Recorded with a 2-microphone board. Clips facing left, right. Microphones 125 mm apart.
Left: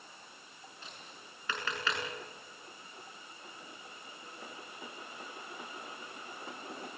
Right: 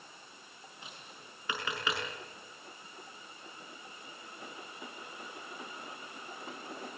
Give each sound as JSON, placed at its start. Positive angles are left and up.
{"t": 0.8, "sound": "tapping", "side_deg": -10, "distance_m": 6.5}